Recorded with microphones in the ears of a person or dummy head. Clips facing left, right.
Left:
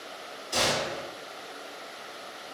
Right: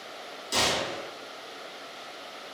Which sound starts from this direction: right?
A gunshot, at 0.5 s.